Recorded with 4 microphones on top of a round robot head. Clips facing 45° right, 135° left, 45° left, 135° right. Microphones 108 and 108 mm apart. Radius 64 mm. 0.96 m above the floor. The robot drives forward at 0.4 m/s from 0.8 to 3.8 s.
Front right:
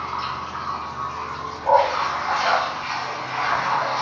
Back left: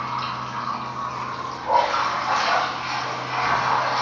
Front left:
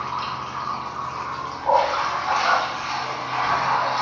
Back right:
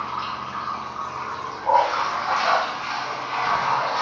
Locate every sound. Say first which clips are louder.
0.0 s running water: even, front left 1 dB; 95° left, 1.3 m; by 4.0 s 140° left, 1.9 m
1.6 s a dog barking: front right 3 dB, even; 35° right, 1.0 m; by 2.7 s 55° right, 0.8 m